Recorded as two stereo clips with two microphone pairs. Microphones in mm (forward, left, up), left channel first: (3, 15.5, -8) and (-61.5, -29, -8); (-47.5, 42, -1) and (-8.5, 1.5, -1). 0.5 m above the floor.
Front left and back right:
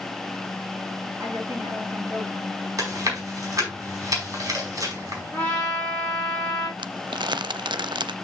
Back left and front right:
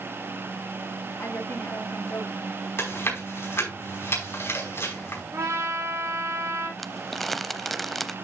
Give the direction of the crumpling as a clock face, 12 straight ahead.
5 o'clock.